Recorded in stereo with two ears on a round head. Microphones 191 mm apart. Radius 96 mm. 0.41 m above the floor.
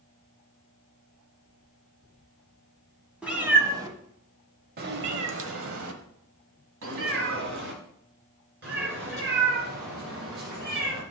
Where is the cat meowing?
5° right (ahead or behind), 1.4 m; by 11.0 s 45° right (ahead or behind), 4 m.